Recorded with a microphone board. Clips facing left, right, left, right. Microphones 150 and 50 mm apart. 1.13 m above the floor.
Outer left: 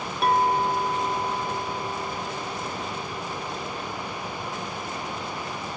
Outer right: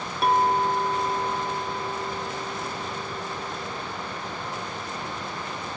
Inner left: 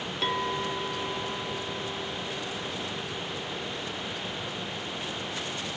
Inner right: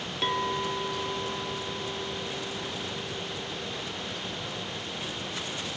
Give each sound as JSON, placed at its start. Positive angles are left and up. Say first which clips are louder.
{"t": 0.2, "sound": "a clink", "louder": "even, inner right 1 dB", "side_deg": 0, "distance_m": 0.8}